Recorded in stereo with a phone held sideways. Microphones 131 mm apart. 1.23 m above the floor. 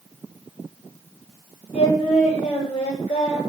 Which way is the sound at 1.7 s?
65° left (ahead or behind).